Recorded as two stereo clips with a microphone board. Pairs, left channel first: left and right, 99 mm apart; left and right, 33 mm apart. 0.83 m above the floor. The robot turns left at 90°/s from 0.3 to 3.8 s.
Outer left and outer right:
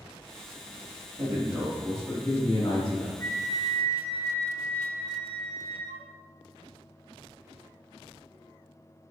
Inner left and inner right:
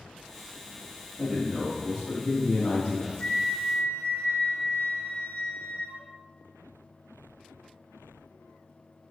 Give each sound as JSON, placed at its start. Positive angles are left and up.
{"t": 1.2, "sound": "a man speaking", "azimuth_deg": -120, "distance_m": 0.8}
{"t": 3.2, "sound": "a flute", "azimuth_deg": 125, "distance_m": 1.7}